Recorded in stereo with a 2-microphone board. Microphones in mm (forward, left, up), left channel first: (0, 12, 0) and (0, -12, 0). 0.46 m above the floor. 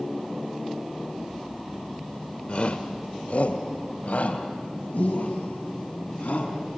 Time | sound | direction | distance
2.5 | a shout | 45° left (ahead or behind) | 1.3 m